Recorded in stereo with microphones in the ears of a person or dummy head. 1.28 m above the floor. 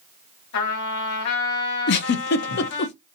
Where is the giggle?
55° left (ahead or behind), 0.6 m.